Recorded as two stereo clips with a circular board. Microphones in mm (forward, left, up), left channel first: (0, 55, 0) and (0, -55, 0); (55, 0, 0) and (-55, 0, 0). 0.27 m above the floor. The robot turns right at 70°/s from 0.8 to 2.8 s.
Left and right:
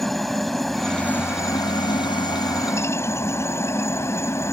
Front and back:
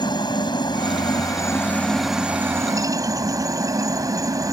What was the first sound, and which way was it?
A helicopter, straight ahead.